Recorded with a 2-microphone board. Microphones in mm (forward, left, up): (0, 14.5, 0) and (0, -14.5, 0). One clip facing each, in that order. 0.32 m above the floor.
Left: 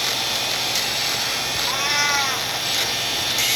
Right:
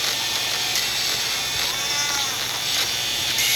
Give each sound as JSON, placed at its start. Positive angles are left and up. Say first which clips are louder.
{"t": 1.7, "sound": "a cat meowing", "louder": "left 4 dB", "side_deg": 30}